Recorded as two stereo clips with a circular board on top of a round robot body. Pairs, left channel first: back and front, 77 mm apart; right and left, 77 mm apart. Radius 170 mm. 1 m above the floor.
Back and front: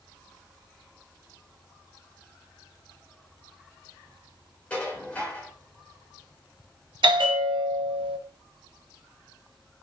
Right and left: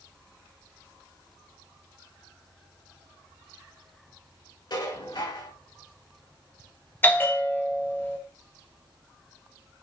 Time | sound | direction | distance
4.7 | dishes clattering | 110° right | 5 m
7.0 | a bell | 20° right | 0.9 m